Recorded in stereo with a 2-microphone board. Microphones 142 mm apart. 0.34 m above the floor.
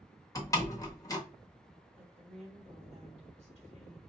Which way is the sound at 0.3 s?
25° left (ahead or behind).